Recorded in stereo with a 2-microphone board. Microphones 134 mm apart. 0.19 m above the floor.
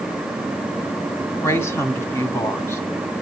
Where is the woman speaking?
20° left (ahead or behind), 1.6 m.